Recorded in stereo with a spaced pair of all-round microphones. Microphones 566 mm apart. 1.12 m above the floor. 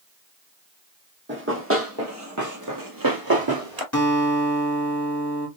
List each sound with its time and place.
1.3 s running footsteps: 20° right (ahead or behind), 2 m; by 3.8 s 40° right (ahead or behind), 1.4 m
3.9 s a guitar: 30° left (ahead or behind), 2.5 m